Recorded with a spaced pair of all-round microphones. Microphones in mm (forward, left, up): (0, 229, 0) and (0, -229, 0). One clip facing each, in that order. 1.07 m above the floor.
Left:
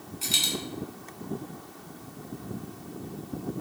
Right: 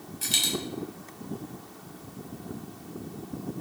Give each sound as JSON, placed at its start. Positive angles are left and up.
{"t": 0.2, "sound": "a dropped coin", "side_deg": -35, "distance_m": 0.6}